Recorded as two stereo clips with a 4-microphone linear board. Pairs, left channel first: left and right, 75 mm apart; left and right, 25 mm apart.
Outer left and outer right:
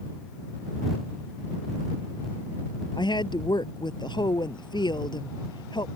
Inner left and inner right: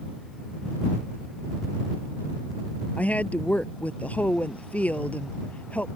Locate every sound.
3.0 s a woman speaking: 75° left (ahead or behind)